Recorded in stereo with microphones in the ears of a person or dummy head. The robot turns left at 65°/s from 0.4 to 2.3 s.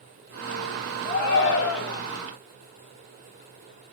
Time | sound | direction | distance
1.1 | a shout | 135° left | 0.8 m